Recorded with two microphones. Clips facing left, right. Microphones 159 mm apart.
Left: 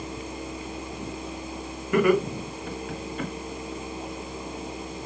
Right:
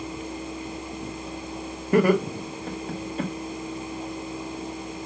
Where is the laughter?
35° right (ahead or behind), 1.1 m.